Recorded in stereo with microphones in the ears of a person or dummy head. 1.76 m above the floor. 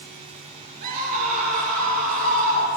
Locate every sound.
0.8 s a scream: 45° right (ahead or behind), 4.5 m